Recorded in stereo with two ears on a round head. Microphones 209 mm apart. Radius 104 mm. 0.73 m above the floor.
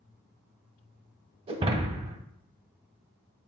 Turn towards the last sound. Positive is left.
turn(degrees=-25)  # may be behind; listen again after turning